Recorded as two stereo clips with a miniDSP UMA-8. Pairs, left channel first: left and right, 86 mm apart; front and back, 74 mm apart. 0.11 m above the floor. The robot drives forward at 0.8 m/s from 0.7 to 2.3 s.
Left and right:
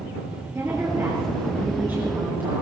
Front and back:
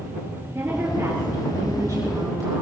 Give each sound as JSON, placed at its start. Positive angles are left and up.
{"t": 0.6, "sound": "a woman speaking", "azimuth_deg": -140, "distance_m": 2.5}